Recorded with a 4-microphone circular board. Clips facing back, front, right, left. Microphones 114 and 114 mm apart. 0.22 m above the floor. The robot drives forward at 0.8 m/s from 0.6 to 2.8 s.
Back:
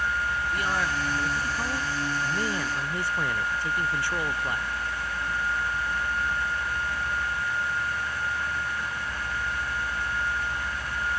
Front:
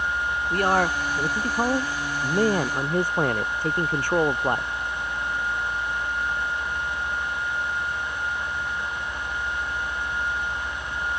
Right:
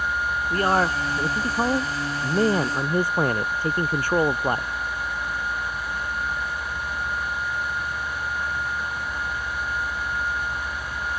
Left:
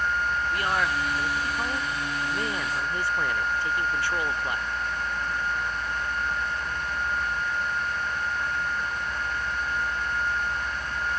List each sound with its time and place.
0.5 s a man speaking: 40° right